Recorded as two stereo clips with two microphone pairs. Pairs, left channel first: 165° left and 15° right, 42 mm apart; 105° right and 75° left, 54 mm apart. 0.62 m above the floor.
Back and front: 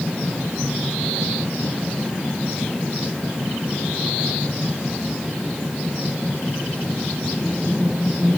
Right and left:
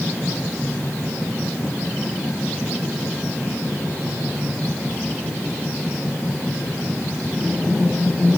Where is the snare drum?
I don't hear a snare drum.